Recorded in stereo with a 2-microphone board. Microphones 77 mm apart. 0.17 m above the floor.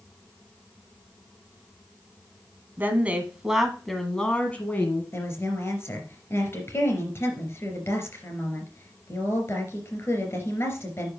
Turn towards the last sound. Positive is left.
turn(degrees=35)  # may be behind; listen again after turning